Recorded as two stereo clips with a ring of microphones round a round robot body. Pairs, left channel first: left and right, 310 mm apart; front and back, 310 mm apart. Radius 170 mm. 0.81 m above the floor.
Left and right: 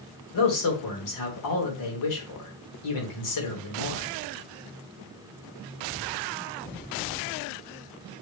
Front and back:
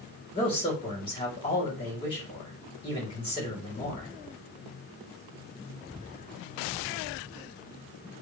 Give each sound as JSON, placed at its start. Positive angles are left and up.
{"t": 0.3, "sound": "a man speaking", "azimuth_deg": 75, "distance_m": 3.5}